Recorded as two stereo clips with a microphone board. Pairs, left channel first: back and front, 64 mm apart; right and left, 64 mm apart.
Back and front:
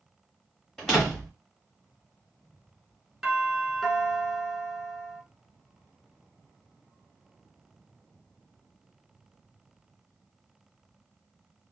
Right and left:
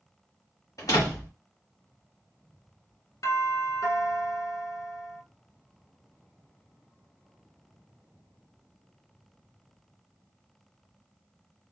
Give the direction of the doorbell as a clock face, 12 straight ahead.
3 o'clock.